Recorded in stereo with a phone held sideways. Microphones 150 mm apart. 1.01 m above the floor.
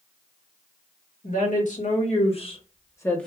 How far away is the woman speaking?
About 1.4 m.